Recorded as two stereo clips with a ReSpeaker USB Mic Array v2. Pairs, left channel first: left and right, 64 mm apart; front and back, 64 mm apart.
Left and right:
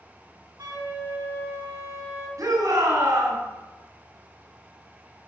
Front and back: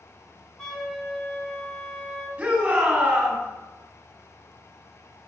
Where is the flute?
80° right, 4 m.